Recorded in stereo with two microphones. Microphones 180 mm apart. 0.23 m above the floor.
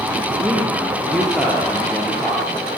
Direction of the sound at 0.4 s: Centre (ahead or behind).